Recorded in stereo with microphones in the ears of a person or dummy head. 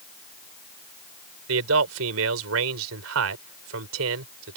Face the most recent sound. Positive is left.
turn(degrees=-80)